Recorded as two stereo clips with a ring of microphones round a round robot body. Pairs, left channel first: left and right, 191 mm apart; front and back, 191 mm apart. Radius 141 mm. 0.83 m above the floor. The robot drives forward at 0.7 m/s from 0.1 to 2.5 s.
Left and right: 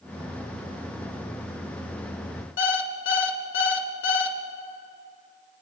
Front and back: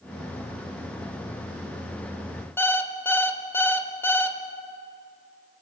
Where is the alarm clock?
80° left, 2.0 m.